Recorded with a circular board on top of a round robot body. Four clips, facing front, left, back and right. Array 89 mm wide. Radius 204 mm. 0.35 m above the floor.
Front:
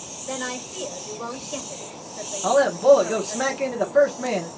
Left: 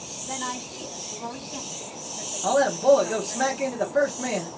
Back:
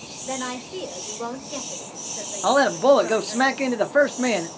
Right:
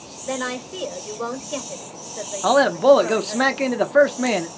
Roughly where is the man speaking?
Behind right.